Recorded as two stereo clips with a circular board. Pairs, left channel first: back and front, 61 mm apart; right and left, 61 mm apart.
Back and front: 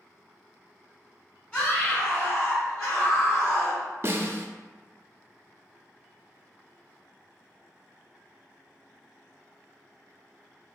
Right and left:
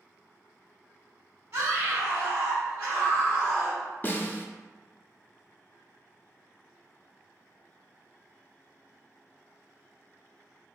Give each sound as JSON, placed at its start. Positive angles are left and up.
{"t": 1.5, "sound": "a scream", "azimuth_deg": 135, "distance_m": 1.7}
{"t": 4.0, "sound": "a snare drum", "azimuth_deg": -40, "distance_m": 0.6}